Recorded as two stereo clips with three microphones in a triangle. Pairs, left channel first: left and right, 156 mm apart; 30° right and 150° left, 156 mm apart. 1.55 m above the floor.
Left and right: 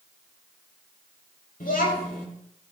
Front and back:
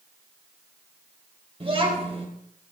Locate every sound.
1.6 s a child speaking: 100° left, 4 m